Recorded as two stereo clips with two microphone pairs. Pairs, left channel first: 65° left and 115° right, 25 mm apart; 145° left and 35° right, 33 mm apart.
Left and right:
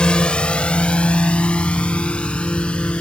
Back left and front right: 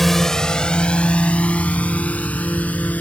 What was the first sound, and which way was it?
A drone, 65° left.